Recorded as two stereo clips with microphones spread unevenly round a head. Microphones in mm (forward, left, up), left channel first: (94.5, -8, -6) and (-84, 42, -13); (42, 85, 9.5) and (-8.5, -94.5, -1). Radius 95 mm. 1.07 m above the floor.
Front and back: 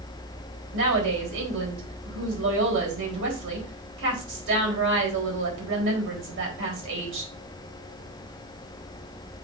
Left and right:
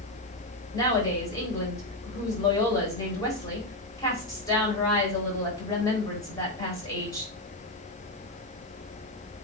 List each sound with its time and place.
0.7 s a woman speaking: 150° left, 4.5 m